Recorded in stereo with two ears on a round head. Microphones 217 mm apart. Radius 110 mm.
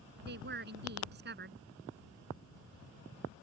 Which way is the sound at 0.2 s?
45° right (ahead or behind).